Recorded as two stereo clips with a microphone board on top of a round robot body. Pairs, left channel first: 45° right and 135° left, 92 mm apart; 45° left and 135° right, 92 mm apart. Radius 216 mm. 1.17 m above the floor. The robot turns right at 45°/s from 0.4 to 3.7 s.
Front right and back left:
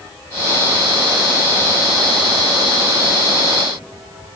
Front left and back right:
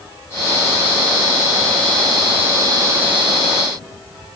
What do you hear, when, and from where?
Only background noise.